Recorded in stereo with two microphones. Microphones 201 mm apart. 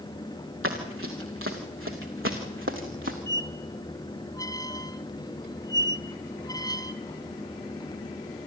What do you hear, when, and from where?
0.6 s running footsteps: 85° right, 3.5 m; by 3.2 s 70° right (ahead or behind), 3 m
3.3 s a squeak: 20° left (ahead or behind), 1.2 m